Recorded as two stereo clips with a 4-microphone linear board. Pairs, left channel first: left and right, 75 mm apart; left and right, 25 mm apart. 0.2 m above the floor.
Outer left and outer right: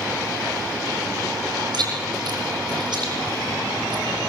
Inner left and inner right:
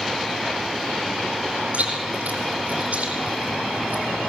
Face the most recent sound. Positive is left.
turn(degrees=-70)  # may be behind; listen again after turning